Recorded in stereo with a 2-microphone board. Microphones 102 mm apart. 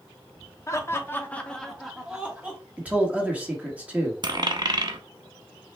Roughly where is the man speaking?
Centre.